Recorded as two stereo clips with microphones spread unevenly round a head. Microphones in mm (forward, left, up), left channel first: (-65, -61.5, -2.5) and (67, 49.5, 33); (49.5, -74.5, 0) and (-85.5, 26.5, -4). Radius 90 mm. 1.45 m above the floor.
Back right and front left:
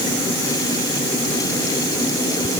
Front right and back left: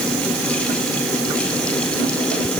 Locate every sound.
Only background noise.